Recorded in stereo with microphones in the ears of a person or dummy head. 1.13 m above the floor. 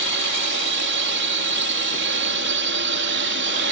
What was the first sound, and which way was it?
A drone, 55° right (ahead or behind).